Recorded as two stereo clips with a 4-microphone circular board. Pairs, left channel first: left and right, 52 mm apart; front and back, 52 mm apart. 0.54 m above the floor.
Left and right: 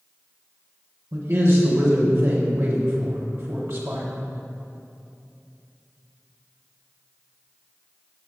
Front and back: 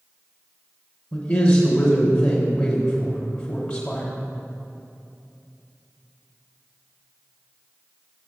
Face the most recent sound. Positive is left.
turn(degrees=-55)